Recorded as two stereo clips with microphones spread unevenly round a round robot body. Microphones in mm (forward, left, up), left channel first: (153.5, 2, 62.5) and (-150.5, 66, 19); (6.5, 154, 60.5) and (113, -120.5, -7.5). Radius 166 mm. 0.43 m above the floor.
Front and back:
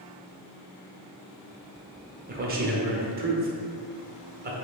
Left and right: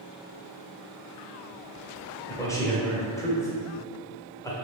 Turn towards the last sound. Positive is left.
turn(degrees=-160)